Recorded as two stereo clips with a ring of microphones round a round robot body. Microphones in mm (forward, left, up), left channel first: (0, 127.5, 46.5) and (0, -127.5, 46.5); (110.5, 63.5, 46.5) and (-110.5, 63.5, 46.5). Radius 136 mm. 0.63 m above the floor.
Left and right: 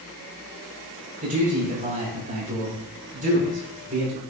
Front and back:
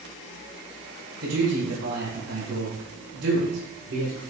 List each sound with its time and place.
1.2 s a man speaking: 150° right, 4 m